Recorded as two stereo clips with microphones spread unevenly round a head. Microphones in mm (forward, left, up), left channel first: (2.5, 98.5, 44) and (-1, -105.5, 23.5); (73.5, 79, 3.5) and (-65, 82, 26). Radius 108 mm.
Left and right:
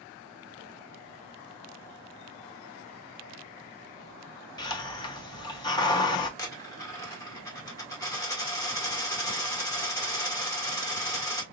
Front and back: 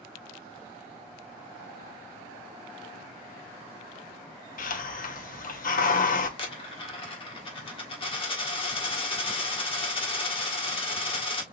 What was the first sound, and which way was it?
A hiss, 20° left.